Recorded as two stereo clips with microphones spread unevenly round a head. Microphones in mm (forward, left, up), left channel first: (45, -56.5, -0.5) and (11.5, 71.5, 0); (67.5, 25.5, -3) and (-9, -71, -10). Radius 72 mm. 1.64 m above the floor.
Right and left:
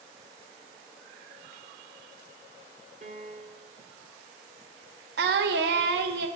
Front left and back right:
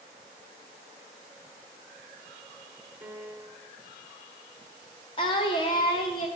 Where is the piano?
150° left, 0.7 m.